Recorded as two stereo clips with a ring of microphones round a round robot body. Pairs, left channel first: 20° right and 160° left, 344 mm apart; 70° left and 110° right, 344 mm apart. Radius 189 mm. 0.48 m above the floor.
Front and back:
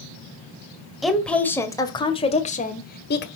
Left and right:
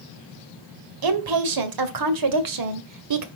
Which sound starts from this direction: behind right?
A woman speaking, at 1.0 s.